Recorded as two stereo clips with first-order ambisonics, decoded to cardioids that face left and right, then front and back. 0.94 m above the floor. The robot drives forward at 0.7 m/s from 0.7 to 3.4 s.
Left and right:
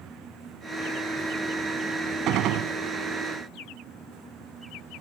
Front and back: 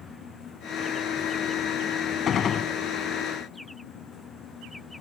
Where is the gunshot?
55° right; by 2.7 s 65° right.